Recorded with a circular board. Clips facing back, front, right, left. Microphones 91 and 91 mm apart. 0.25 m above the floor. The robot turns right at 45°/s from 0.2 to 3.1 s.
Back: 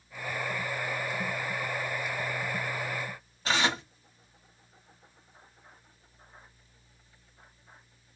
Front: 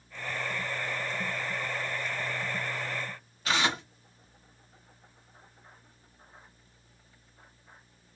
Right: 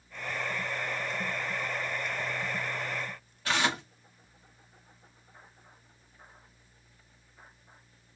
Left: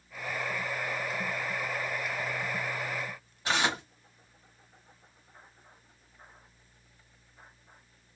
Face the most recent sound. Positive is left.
turn(degrees=145)